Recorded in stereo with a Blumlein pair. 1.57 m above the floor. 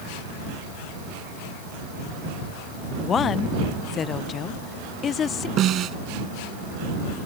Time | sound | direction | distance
3.0 | a woman speaking | 25° left | ?
5.6 | a snare drum | 30° right | ?